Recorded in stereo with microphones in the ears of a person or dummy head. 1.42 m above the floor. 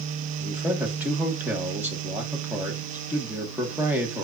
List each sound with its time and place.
0.4 s a man speaking: 10° right (ahead or behind), 1.5 m